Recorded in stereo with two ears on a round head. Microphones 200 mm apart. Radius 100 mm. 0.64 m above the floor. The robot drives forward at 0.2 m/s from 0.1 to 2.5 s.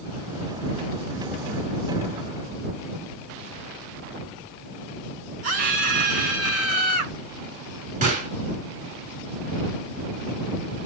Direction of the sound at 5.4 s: 40° right (ahead or behind).